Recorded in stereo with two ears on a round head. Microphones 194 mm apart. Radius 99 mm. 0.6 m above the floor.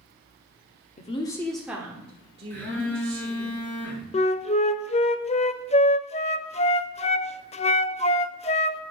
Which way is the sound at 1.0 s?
30° left (ahead or behind).